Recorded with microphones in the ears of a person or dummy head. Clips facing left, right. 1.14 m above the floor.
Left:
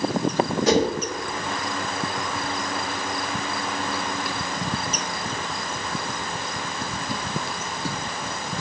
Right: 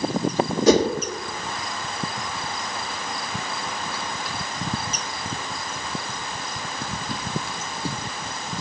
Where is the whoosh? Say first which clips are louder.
Right 4 dB; 75° right (ahead or behind), 1.2 m.